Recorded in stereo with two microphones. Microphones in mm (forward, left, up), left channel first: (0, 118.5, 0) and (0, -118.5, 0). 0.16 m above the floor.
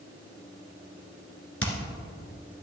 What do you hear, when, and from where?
1.6 s hammering: 60° left (ahead or behind), 1.7 m